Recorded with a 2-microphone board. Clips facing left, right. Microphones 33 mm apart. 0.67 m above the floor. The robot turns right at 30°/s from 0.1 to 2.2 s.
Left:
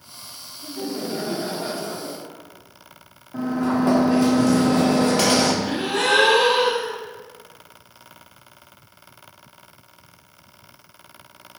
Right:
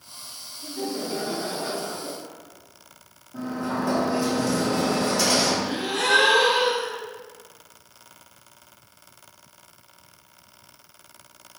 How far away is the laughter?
About 1.4 m.